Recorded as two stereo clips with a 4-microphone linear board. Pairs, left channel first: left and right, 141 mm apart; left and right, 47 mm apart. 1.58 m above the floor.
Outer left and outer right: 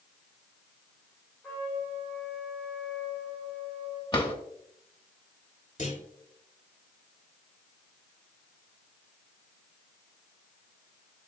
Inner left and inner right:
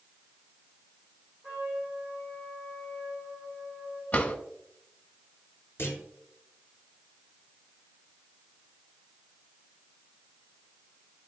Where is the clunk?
60° left (ahead or behind), 3 m.